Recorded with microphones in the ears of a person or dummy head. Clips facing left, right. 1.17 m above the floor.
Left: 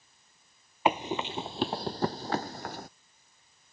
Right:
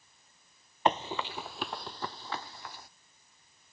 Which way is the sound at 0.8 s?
5° left (ahead or behind).